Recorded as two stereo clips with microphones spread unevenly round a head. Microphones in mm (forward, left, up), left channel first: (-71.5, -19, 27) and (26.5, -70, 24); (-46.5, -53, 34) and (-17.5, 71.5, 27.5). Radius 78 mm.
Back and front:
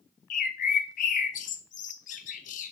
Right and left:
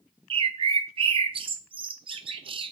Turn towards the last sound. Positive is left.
turn(degrees=125)